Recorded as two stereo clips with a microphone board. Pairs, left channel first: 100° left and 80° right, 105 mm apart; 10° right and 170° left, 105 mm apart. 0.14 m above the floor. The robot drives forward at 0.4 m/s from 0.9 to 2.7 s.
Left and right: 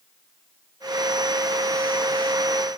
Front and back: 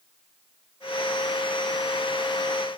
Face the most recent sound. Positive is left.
No sound to turn to.